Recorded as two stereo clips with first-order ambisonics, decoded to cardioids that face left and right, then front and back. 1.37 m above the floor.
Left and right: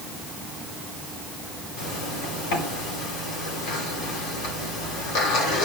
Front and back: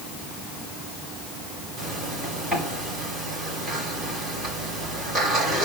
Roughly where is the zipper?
Left.